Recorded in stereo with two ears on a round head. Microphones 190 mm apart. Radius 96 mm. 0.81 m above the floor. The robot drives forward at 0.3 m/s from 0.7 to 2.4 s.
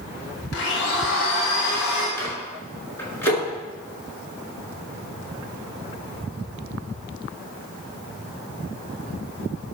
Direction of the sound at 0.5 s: 60° left (ahead or behind).